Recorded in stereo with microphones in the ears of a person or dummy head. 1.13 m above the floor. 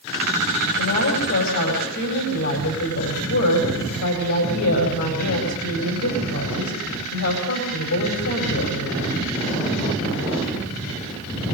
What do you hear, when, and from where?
0.7 s a woman speaking: 80° left, 5 m